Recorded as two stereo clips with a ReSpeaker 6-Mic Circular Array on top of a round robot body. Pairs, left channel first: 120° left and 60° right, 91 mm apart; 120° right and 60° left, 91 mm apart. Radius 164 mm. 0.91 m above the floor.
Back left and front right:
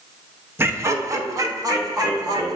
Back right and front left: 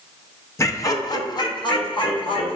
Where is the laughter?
95° right, 0.8 m; by 2.6 s 105° right, 1.6 m.